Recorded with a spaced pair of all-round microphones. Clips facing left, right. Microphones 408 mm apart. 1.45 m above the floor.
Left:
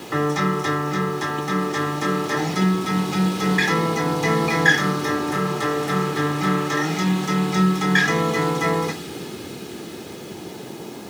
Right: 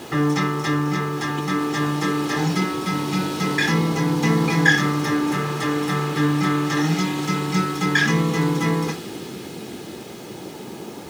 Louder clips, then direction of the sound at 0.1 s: Right 2 dB; 35° right (ahead or behind).